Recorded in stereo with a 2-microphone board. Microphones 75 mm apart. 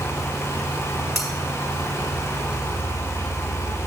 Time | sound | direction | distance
1.1 | cutlery clinking | centre (ahead or behind) | 3.5 m